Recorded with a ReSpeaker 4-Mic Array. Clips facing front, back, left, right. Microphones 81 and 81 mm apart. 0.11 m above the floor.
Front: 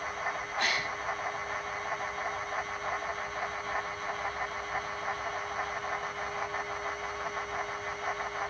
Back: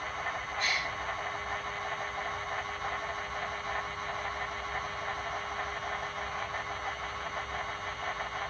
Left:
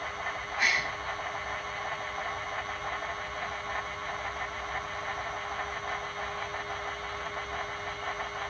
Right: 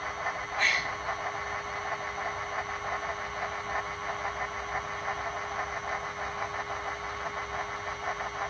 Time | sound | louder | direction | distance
0.6 | a gasp | front 2 dB, even | 10° left | 4.5 m